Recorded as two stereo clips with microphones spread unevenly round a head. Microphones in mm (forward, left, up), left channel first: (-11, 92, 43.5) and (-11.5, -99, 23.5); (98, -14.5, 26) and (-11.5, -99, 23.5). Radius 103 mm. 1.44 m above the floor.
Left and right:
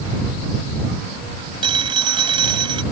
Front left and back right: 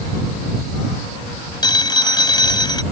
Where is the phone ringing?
20° right.